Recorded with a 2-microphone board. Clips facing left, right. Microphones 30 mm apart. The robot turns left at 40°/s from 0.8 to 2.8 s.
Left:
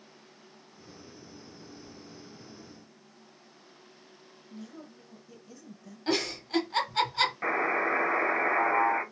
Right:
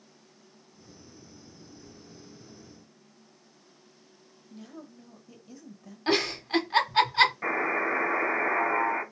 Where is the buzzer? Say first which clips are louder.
Even; 15° left (ahead or behind), 1.7 m.